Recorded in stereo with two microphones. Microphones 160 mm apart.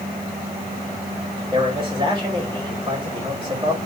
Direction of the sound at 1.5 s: 30° right (ahead or behind).